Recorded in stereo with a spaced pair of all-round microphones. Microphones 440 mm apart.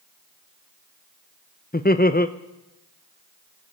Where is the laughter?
20° left (ahead or behind), 0.7 m.